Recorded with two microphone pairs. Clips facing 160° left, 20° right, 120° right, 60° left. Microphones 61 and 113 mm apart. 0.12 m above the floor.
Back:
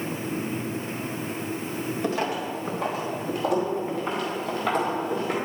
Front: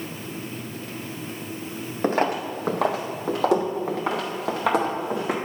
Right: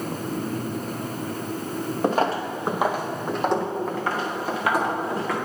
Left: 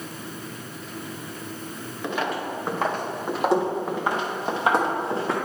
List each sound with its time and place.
2.0 s footsteps: 70° right, 0.9 m; by 5.3 s straight ahead, 2.5 m